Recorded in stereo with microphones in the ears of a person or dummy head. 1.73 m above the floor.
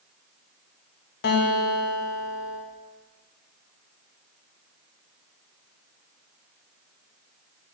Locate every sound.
1.2 s a guitar: 50° left (ahead or behind), 1.4 m